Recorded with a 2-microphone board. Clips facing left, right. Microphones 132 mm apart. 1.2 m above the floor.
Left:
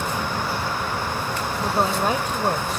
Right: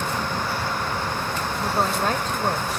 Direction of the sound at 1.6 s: 10° left (ahead or behind).